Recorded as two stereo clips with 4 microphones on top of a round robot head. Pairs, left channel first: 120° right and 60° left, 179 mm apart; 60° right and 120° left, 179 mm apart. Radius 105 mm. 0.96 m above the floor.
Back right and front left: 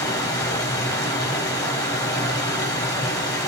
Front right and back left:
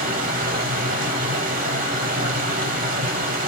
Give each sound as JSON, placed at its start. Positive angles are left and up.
{"t": 0.0, "sound": "running water", "azimuth_deg": 165, "distance_m": 4.5}